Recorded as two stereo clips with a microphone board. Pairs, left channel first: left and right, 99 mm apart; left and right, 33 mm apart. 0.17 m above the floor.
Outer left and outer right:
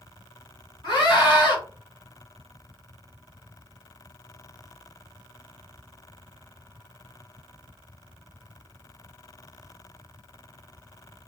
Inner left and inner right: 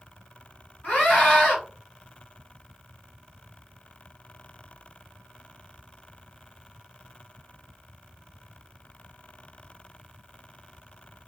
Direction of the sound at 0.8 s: 50° left (ahead or behind).